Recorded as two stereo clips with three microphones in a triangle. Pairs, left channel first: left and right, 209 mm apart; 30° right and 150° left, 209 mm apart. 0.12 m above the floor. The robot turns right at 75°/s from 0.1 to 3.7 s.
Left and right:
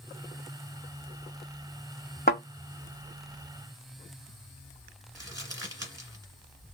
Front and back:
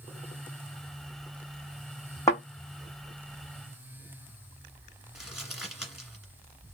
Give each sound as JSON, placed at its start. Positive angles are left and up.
{"t": 2.3, "sound": "a thud", "azimuth_deg": 45, "distance_m": 1.4}
{"t": 5.2, "sound": "crumpling", "azimuth_deg": -125, "distance_m": 1.5}